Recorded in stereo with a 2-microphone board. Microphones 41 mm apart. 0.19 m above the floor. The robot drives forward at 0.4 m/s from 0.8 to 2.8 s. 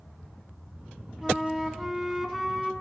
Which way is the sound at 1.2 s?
5° right (ahead or behind).